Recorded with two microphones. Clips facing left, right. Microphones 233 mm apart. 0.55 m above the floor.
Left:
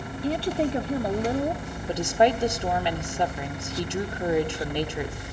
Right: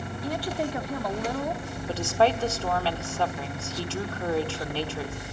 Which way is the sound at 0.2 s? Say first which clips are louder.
Left 5 dB; 30° left (ahead or behind).